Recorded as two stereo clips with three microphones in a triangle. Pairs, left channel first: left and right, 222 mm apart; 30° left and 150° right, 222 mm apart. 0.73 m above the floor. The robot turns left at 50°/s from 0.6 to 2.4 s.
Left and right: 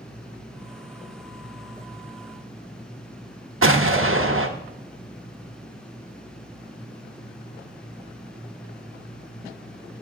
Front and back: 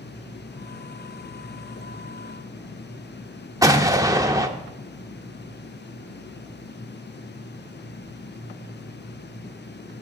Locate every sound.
3.6 s an explosion: 75° right, 0.7 m